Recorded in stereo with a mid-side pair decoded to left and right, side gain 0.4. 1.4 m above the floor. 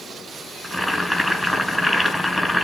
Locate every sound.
0.6 s boiling: 5° left, 5 m